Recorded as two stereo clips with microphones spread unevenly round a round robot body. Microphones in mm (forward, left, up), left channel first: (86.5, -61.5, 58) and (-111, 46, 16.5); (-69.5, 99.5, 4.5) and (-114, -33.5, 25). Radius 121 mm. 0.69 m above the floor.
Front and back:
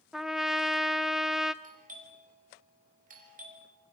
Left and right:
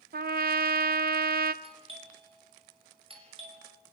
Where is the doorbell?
160° right, 5.5 m.